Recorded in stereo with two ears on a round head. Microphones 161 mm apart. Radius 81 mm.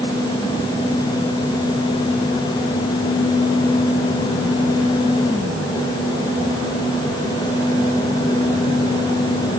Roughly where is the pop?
I don't hear a pop.